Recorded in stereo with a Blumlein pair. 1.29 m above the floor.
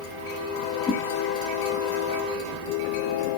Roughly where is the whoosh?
Ahead.